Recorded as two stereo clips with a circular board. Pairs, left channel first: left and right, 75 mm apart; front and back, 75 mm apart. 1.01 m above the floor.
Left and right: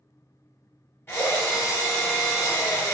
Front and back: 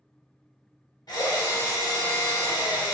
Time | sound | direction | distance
1.1 | a drill | 25° left | 1.0 m